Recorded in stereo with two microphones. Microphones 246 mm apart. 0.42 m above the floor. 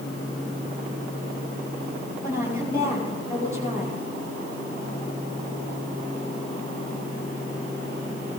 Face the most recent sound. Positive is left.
turn(degrees=-10)  # may be behind; listen again after turning